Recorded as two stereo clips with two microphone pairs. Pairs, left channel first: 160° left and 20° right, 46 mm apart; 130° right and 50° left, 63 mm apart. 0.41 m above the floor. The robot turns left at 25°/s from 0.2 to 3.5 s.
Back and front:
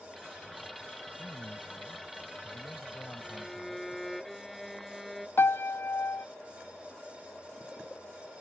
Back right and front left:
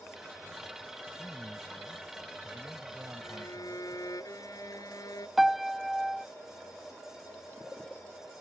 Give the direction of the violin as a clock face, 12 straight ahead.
4 o'clock.